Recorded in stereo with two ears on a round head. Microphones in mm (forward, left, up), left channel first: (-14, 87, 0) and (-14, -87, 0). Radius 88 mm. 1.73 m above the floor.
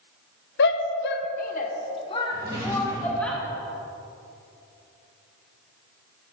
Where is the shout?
65° left (ahead or behind), 1.0 m; by 3.3 s 5° left (ahead or behind), 2.0 m.